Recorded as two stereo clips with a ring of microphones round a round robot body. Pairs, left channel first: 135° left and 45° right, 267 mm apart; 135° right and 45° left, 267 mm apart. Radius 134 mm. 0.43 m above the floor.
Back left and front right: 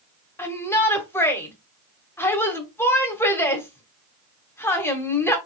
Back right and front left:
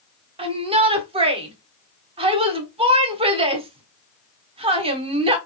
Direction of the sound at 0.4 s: 70° left.